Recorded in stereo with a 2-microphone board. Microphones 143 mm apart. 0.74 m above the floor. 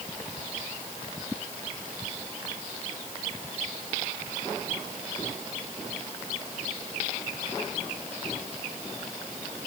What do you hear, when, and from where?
Only background noise.